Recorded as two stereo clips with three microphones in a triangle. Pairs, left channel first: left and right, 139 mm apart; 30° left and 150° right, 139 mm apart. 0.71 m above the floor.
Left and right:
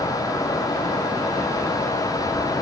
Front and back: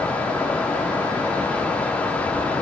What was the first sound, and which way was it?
Only background noise.